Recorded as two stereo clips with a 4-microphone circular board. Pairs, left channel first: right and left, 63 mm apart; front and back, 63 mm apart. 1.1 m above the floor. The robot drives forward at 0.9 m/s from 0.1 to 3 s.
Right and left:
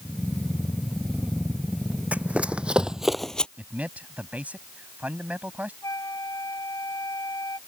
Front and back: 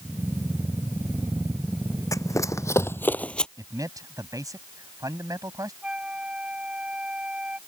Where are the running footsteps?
25° left; by 3.5 s 60° right.